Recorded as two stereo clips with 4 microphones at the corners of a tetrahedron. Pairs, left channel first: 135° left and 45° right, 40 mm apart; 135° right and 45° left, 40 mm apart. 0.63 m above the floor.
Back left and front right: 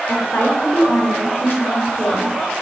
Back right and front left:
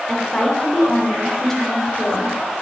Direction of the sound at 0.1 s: 145° left.